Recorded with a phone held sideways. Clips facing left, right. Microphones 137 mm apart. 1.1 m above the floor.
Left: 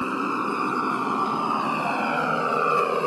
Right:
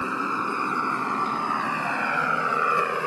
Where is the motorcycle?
15° left (ahead or behind); by 3.1 s 25° left (ahead or behind).